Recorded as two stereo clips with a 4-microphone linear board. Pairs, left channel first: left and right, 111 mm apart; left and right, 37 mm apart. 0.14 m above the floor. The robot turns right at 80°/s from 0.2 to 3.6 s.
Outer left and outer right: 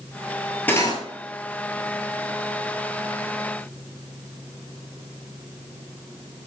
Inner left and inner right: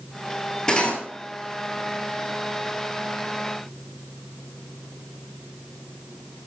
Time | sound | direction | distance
0.7 | cutlery clinking | 15° left (ahead or behind) | 1.7 m